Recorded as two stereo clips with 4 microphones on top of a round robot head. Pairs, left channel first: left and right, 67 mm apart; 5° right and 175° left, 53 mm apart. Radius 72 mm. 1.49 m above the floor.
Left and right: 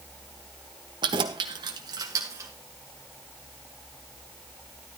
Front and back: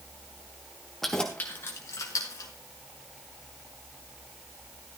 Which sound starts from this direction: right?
Keys jangling, at 1.0 s.